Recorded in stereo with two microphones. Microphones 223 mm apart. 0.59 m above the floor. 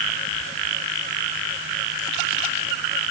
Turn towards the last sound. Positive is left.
No sound to turn to.